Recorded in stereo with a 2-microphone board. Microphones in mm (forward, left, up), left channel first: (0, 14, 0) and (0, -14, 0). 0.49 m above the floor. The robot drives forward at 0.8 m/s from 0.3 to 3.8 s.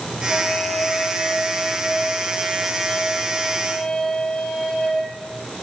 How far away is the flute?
About 4.5 m.